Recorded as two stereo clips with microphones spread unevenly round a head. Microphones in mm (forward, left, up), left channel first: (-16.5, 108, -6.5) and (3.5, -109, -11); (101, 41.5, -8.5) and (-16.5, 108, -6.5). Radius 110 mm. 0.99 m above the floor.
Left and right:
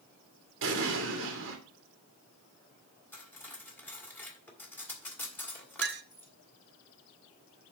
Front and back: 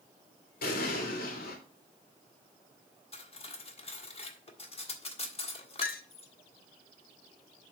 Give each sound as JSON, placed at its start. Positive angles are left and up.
{"t": 0.6, "sound": "an explosion", "azimuth_deg": -50, "distance_m": 2.0}
{"t": 3.1, "sound": "cutlery clinking", "azimuth_deg": 15, "distance_m": 1.6}
{"t": 5.8, "sound": "a clink", "azimuth_deg": -40, "distance_m": 0.8}